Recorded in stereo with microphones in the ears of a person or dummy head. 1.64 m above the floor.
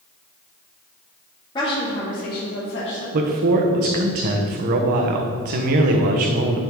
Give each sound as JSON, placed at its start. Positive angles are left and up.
{"t": 1.6, "sound": "a woman speaking", "side_deg": 25, "distance_m": 2.0}
{"t": 3.1, "sound": "a man speaking", "side_deg": -50, "distance_m": 1.0}